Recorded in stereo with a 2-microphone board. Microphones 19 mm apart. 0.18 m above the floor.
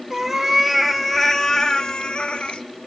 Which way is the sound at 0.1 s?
15° right (ahead or behind).